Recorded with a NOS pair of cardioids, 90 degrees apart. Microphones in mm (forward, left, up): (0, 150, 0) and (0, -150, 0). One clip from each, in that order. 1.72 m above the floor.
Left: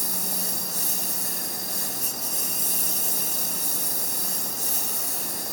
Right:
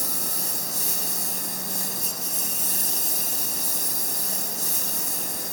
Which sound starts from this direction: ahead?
A lawn mower, at 0.0 s.